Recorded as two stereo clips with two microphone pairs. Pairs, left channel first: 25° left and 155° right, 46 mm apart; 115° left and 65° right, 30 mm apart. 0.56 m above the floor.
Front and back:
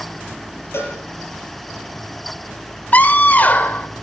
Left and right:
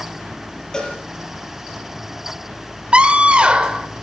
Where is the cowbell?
50° left, 6.5 m.